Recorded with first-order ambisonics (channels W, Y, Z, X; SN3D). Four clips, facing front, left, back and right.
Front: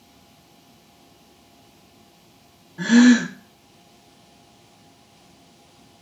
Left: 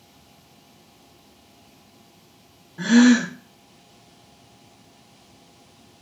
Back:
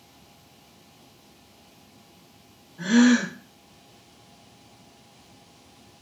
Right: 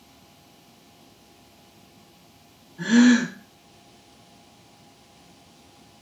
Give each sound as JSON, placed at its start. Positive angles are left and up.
{"t": 2.8, "sound": "a gasp", "azimuth_deg": 40, "distance_m": 0.6}